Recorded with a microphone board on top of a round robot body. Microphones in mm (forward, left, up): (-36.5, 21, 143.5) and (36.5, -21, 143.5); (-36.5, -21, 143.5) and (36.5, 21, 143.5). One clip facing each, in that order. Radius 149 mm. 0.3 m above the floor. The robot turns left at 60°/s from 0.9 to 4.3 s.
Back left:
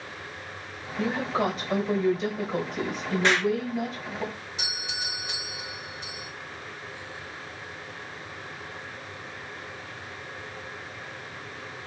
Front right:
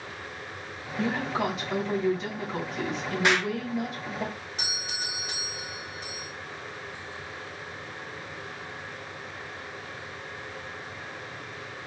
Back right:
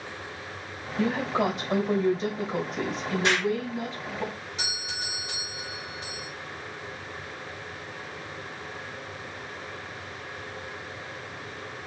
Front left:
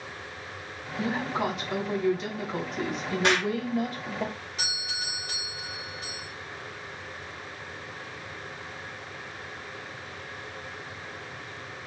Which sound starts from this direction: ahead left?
An explosion, at 3.2 s.